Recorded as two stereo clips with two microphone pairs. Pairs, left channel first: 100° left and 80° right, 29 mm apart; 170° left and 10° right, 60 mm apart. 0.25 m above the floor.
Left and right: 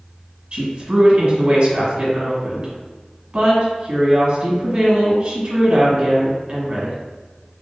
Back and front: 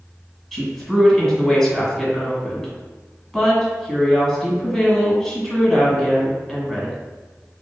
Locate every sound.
0.5 s a woman speaking: 105° right, 1.7 m